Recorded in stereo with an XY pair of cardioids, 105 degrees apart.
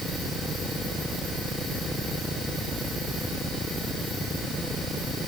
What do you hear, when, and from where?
Only background noise.